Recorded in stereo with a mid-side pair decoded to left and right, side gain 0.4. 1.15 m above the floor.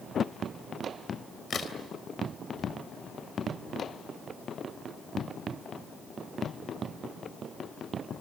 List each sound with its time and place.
1.5 s a crack: 55° left, 3 m